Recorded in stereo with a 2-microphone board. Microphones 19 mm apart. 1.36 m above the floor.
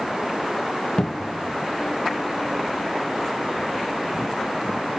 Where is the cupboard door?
45° left (ahead or behind), 1.4 m.